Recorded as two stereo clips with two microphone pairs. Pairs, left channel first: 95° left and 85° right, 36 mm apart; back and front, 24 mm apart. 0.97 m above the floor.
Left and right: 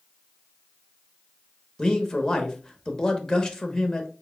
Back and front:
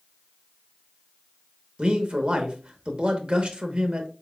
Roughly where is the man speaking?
Ahead left.